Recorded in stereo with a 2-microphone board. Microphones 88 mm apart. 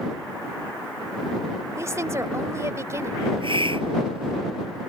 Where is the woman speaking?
35° right (ahead or behind).